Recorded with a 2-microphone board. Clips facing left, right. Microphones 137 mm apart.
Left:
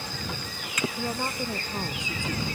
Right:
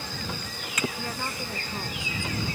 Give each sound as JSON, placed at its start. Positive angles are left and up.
{"t": 1.0, "sound": "a woman speaking", "side_deg": 20}